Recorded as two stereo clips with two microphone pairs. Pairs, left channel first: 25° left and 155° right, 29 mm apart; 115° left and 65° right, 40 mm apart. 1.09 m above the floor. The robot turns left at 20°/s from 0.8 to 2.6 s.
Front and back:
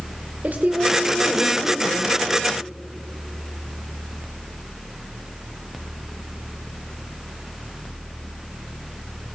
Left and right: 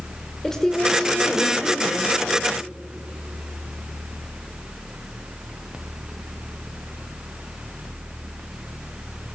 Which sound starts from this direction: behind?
A woman speaking, at 0.4 s.